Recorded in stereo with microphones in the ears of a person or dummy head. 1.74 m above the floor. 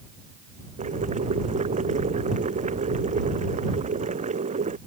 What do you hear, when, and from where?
0.8 s boiling: 40° right (ahead or behind)